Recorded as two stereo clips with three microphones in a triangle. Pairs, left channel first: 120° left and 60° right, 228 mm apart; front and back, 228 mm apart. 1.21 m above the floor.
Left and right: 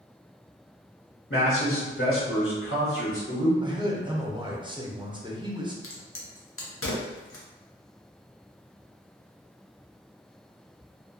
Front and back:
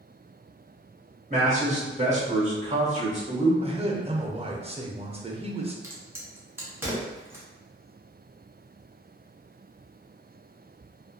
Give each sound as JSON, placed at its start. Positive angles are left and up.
{"t": 1.3, "sound": "a man speaking", "azimuth_deg": 125, "distance_m": 1.5}
{"t": 3.6, "sound": "a man speaking", "azimuth_deg": -120, "distance_m": 0.5}
{"t": 5.8, "sound": "a crack", "azimuth_deg": 100, "distance_m": 0.7}